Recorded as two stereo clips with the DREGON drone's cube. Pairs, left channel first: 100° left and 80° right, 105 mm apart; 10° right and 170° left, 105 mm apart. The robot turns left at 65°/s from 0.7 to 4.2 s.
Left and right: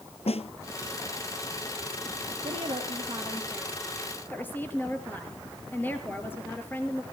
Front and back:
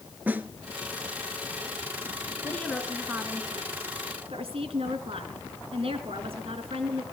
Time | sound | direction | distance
0.3 | a snare drum | 100° left | 1.0 m
2.4 | a woman speaking | 75° right | 3 m